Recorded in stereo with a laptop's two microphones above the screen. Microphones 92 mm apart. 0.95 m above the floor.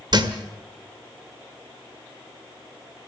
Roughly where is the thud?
Right.